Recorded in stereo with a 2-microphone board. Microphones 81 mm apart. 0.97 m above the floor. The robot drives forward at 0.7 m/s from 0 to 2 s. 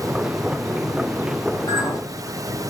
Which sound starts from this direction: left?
A clink, at 1.7 s.